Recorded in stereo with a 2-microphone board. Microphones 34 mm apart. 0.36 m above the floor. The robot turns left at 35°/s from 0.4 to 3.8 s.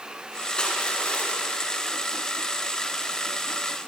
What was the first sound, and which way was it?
Crushing, 150° left.